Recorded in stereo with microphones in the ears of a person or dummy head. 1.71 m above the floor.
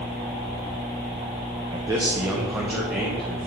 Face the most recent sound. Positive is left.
turn(degrees=-5)  # may be behind; listen again after turning